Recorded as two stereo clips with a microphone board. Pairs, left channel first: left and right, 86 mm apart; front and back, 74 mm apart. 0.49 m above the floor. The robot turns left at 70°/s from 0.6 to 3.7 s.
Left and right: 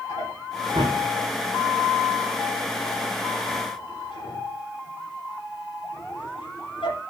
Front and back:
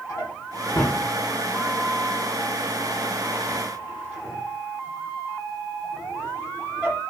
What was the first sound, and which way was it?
A drawer, 45° right.